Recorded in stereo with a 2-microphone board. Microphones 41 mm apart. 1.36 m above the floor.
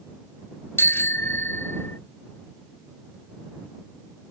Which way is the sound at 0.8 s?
70° left (ahead or behind).